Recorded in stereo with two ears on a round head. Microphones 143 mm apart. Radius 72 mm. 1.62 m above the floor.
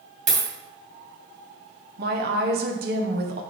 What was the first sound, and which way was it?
A dropped coin, 50° right (ahead or behind).